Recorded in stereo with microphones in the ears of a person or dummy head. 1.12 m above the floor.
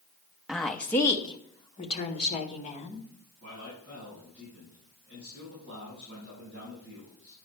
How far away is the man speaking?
About 4.5 m.